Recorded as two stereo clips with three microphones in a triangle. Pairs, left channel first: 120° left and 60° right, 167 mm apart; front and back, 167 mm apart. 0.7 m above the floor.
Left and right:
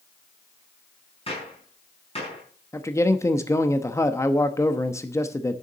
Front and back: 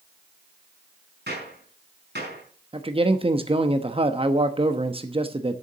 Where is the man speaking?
Straight behind, 0.9 m.